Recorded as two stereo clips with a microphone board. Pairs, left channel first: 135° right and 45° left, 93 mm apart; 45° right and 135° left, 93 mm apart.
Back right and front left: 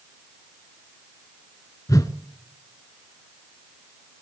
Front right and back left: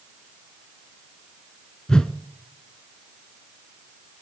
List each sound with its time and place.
1.9 s a whoosh: 125° right, 0.7 m